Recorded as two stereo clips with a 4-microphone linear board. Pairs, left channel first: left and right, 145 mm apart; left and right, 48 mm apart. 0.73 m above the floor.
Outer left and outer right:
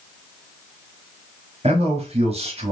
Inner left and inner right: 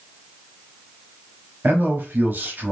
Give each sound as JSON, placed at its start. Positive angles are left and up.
{"t": 1.6, "sound": "a man speaking", "side_deg": -45, "distance_m": 1.0}